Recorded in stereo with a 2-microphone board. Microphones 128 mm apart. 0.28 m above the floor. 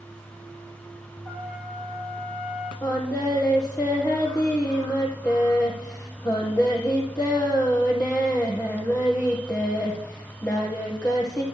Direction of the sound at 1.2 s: 10° right (ahead or behind).